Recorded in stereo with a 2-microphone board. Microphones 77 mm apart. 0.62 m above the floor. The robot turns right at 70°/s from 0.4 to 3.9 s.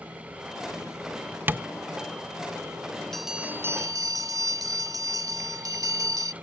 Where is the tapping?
30° right (ahead or behind); by 1.7 s 15° right (ahead or behind).